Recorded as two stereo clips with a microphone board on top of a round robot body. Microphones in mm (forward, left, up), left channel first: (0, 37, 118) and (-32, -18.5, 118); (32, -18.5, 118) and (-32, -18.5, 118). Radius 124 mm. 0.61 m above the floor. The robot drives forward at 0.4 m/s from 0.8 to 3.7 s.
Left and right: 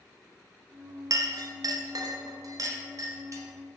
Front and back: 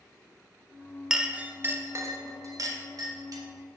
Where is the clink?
100° right, 0.5 m; by 3.4 s 155° right, 1.1 m.